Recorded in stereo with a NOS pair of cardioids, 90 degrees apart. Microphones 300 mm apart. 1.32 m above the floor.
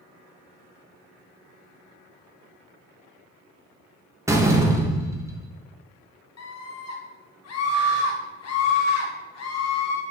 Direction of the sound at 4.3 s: 10° right.